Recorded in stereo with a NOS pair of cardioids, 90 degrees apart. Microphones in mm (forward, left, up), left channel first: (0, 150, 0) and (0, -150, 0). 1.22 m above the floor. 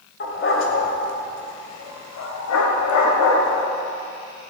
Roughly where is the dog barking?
Ahead left.